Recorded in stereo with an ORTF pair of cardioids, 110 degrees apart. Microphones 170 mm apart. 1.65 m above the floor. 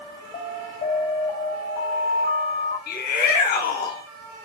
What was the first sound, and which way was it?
An alarm, 65° left.